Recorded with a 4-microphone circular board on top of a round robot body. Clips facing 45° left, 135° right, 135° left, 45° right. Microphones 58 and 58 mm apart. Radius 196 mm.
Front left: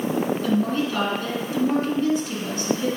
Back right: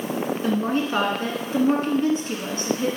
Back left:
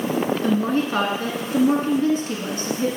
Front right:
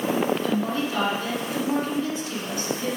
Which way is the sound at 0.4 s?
175° right.